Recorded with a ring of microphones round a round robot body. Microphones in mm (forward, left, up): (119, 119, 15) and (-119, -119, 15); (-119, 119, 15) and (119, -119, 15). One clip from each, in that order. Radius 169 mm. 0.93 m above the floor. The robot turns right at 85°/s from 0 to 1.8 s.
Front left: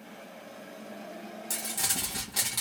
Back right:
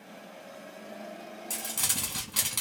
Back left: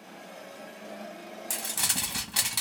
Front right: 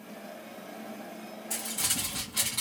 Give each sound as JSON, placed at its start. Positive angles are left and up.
{"t": 1.5, "sound": "crumpling", "azimuth_deg": 120, "distance_m": 1.4}